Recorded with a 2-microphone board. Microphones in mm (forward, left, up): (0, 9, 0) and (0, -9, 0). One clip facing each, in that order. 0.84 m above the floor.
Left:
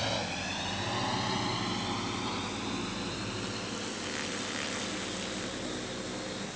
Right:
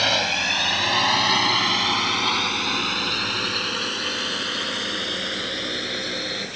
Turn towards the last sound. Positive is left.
turn(degrees=-60)  # may be behind; listen again after turning